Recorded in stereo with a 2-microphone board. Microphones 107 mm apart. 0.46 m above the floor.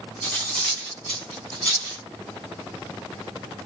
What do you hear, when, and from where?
0.2 s cutlery clinking: 10° left (ahead or behind), 2.5 m